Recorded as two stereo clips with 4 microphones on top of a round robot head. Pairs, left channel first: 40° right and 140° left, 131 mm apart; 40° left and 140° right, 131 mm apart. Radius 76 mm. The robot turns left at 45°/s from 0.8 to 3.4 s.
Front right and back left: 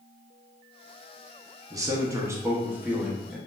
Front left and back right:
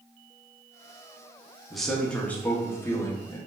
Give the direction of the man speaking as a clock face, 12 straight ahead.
8 o'clock.